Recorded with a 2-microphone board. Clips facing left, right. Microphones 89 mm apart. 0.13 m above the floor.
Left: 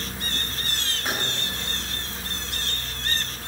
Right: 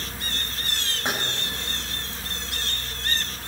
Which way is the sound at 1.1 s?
30° right (ahead or behind).